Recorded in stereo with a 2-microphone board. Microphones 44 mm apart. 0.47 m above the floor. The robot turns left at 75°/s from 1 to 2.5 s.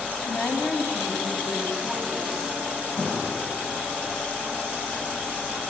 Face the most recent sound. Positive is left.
turn(degrees=0)  # may be behind; listen again after turning